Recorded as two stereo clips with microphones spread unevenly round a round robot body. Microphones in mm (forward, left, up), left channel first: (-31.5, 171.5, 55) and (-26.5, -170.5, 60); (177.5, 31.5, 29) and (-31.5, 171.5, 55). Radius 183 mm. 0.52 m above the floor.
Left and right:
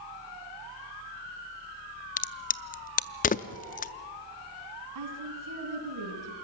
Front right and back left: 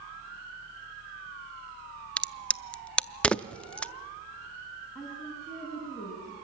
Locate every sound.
2.2 s a crack: 40° left, 0.6 m
5.0 s a woman speaking: 120° right, 5.5 m